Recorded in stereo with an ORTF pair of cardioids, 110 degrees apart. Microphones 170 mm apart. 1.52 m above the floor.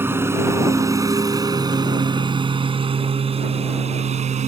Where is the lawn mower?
15° right; by 4.5 s 45° right.